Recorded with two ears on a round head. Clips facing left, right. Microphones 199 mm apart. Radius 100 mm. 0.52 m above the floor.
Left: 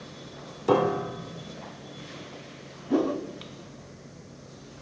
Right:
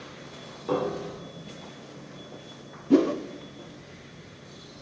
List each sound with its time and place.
0.7 s a piano: 65° left (ahead or behind), 0.9 m
2.9 s a whoosh: 35° right (ahead or behind), 0.8 m